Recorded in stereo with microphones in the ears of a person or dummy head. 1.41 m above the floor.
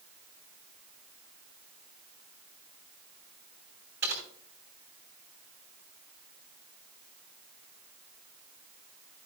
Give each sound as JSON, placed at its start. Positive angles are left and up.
{"t": 4.0, "sound": "typing on a keyboard", "side_deg": -50, "distance_m": 3.0}